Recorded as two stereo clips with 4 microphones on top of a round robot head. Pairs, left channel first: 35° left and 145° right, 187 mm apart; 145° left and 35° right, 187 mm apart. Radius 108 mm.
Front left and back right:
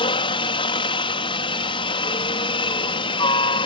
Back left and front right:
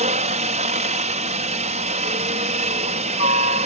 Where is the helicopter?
10° right.